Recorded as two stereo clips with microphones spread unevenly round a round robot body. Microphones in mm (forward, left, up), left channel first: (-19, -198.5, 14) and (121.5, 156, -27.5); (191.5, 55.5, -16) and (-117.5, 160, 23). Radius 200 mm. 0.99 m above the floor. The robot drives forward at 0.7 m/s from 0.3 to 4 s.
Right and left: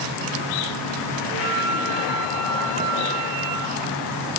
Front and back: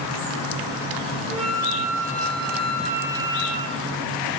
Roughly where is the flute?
Left.